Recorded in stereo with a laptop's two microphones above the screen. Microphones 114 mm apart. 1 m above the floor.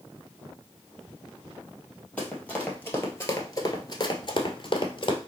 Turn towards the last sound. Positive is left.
turn(degrees=45)  # may be behind; listen again after turning